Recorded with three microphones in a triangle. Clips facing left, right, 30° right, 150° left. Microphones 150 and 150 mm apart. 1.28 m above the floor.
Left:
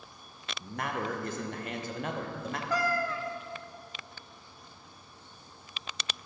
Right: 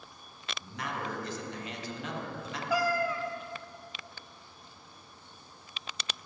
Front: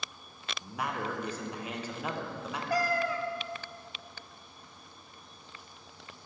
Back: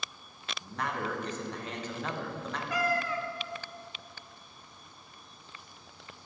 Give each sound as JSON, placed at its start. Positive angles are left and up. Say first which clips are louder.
{"t": 0.6, "sound": "a man speaking", "louder": "left 4 dB, even", "azimuth_deg": 50, "distance_m": 0.9}
{"t": 2.7, "sound": "a cat meowing", "louder": "right 2 dB, front 2 dB", "azimuth_deg": -15, "distance_m": 0.5}